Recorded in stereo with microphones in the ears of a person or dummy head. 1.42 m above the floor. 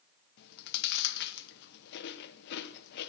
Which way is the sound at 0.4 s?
60° left (ahead or behind).